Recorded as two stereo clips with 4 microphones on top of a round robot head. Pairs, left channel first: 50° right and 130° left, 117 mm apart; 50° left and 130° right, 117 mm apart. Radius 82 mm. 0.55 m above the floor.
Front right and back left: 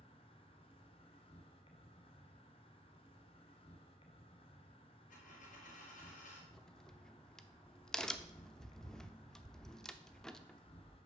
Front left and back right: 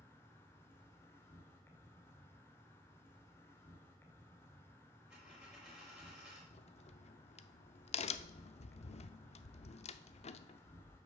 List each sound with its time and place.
0.0 s an insect: 15° right, 1.9 m
5.1 s a dropped coin: 45° right, 4 m
6.5 s a crack: 35° left, 0.7 m